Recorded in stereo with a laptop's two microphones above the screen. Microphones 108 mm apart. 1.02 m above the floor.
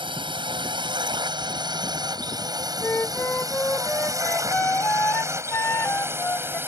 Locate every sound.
0.0 s a drone: 45° right (ahead or behind); by 6.7 s 20° right (ahead or behind)
2.8 s a flute: 20° left (ahead or behind)